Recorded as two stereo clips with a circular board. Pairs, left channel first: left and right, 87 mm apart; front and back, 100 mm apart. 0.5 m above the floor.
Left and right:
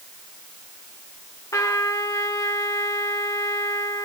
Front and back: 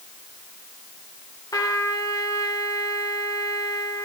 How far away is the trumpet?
About 1.6 m.